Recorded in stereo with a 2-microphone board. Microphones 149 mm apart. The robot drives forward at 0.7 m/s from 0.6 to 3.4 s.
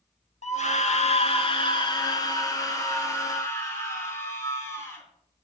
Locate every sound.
0.4 s a scream: 55° left (ahead or behind), 0.9 m; by 5.0 s 20° left (ahead or behind), 2 m